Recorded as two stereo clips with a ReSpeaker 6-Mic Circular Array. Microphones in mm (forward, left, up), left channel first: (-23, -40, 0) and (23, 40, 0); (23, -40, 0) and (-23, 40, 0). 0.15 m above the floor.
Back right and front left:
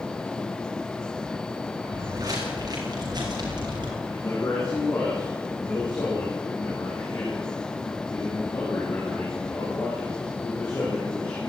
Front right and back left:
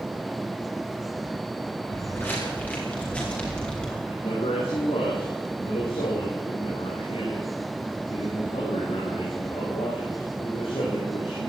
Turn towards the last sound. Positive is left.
turn(degrees=-55)